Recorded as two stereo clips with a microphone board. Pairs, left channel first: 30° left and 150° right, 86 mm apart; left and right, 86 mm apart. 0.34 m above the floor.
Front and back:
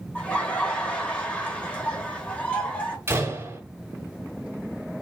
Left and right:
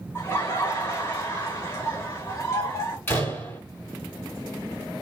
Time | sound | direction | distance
0.1 | laughter | 90° left | 1.0 m
3.1 | a door slam | 155° left | 1.9 m